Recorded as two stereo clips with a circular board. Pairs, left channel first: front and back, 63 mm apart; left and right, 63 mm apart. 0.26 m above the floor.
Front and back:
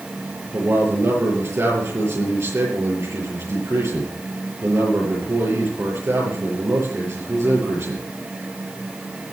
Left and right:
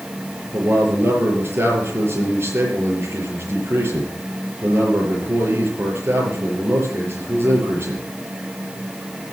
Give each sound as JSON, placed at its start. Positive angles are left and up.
{"t": 0.5, "sound": "a man speaking", "azimuth_deg": -140, "distance_m": 6.5}